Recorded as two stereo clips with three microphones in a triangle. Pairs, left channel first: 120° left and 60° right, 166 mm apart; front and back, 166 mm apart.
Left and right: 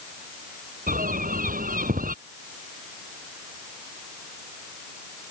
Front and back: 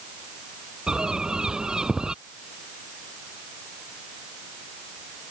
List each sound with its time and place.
0.9 s a bird: 95° right